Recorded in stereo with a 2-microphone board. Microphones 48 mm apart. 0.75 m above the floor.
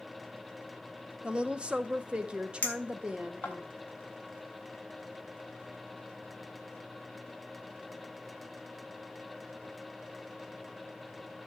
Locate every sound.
1.2 s a woman speaking: 25° right (ahead or behind), 0.7 m
2.6 s a clink: 30° left (ahead or behind), 1.8 m